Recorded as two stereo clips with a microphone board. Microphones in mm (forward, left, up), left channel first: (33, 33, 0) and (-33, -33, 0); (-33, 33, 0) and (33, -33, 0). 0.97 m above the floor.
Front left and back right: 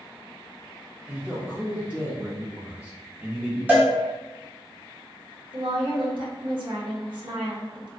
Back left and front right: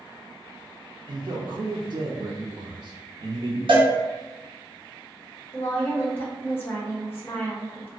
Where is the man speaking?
60° right, 0.6 m.